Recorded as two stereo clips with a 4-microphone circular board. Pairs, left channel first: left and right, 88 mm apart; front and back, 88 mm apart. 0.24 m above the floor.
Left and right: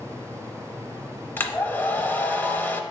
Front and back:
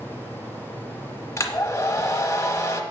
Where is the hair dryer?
35° left, 0.8 m.